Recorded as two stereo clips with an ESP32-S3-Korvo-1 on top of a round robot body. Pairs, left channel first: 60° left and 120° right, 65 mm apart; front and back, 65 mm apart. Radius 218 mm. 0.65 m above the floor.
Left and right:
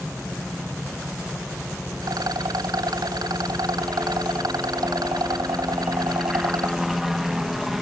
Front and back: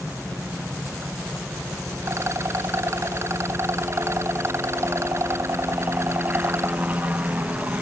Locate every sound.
0.0 s a helicopter: 160° left
2.0 s a rattle: 135° right